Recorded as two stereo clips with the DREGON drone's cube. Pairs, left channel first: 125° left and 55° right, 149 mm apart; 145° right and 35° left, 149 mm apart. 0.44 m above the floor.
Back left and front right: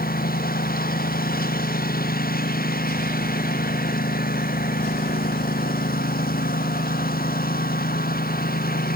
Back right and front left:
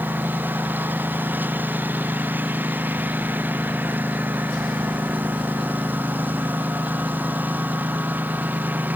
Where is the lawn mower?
110° left; by 9.0 s 115° left.